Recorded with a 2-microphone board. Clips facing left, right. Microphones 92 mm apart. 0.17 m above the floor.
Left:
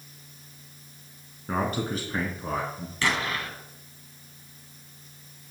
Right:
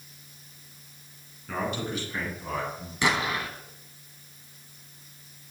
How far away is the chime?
No chime in this recording.